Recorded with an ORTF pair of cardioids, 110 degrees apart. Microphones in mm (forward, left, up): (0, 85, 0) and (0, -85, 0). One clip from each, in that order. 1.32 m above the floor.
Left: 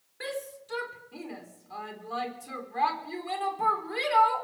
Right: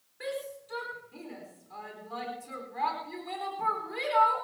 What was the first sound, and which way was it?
A shout, 30° left.